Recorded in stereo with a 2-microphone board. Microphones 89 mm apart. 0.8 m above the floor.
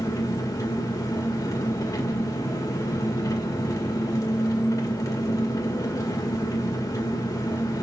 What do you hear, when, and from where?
0.0 s an engine running: 40° left (ahead or behind), 1.9 m